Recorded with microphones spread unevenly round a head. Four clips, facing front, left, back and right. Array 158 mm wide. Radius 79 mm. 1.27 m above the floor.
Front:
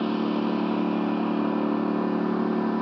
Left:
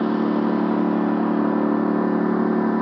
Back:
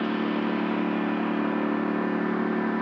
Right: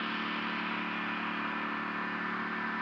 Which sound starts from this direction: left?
A lawn mower, at 0.0 s.